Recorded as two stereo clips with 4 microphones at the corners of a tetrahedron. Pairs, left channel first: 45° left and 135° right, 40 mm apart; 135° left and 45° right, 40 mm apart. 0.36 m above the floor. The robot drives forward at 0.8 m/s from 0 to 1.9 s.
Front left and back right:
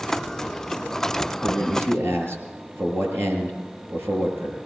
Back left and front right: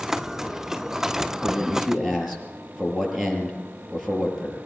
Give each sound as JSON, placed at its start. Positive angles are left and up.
{"t": 1.4, "sound": "a man speaking", "azimuth_deg": -135, "distance_m": 6.0}